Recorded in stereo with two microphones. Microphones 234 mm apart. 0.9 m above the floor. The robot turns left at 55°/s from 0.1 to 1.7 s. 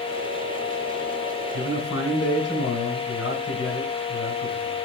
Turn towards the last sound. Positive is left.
turn(degrees=65)  # may be behind; listen again after turning